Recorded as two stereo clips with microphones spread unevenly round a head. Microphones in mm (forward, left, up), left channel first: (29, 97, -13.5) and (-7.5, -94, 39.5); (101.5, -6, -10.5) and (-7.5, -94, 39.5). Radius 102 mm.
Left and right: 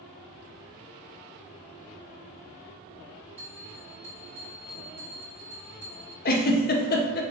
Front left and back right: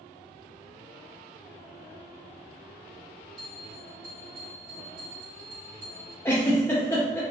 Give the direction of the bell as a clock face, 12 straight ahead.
6 o'clock.